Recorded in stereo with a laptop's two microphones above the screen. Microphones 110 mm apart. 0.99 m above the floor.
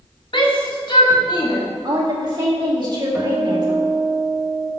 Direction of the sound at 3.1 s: 5° right (ahead or behind).